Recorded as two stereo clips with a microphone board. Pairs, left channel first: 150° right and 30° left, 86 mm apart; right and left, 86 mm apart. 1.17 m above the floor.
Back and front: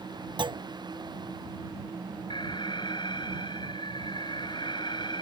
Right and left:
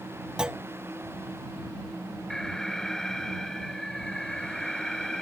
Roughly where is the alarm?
Behind.